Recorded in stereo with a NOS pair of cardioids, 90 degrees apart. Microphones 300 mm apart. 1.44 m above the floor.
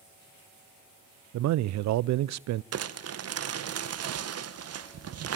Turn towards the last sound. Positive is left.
turn(degrees=-55)